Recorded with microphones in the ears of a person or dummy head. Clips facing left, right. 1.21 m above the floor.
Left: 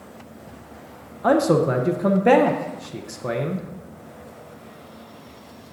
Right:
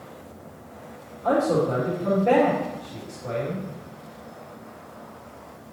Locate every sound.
1.2 s a man speaking: 80° left, 0.6 m